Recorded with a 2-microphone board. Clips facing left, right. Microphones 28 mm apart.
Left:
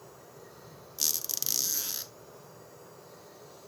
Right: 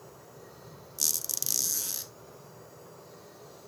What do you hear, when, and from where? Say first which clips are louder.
1.0 s a squeak: even; 20° left (ahead or behind), 0.5 m